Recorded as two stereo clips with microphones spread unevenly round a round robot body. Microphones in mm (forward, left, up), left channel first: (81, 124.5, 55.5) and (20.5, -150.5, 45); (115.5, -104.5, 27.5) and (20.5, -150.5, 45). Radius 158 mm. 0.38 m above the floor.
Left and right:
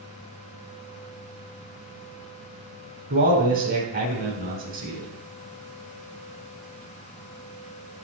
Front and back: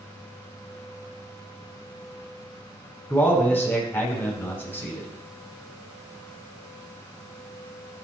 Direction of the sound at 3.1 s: 45° right.